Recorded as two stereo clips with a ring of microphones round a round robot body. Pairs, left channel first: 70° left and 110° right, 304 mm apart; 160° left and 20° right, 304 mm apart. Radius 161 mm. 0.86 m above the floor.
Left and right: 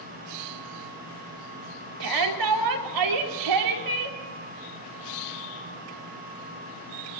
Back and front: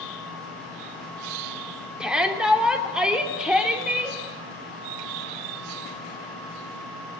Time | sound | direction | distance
2.0 | a shout | 110° right | 3 m